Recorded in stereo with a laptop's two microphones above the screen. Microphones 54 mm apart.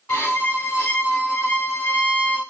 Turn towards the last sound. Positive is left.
turn(degrees=75)  # may be behind; listen again after turning